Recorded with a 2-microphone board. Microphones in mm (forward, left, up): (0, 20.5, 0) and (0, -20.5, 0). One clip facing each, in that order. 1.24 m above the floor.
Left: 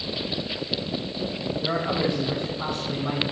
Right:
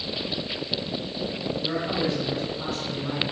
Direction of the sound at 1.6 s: 30° left (ahead or behind).